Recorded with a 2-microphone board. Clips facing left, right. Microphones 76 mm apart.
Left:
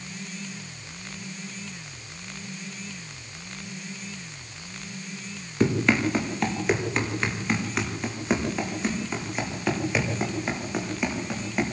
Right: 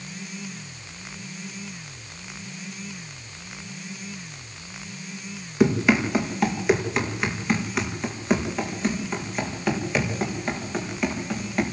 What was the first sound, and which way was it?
Running footsteps, 10° right (ahead or behind).